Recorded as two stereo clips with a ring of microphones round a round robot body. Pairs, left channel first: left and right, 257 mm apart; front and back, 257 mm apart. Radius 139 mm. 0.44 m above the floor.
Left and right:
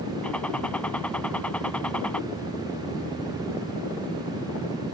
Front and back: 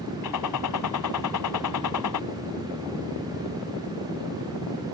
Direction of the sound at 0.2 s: 5° left.